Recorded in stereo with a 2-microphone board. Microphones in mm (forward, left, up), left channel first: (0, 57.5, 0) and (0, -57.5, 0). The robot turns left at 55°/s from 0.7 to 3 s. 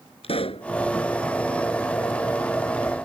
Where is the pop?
60° left (ahead or behind).